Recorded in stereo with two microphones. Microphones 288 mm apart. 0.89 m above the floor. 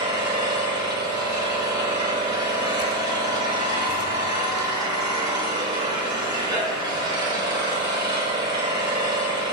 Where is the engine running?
15° right (ahead or behind), 3.5 m.